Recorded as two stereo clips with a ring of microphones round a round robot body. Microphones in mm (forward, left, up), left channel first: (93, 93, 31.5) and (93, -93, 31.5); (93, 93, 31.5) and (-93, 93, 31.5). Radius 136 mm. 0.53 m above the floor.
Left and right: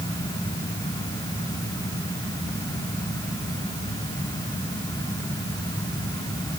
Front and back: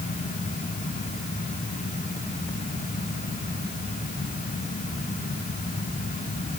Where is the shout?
No shout in this recording.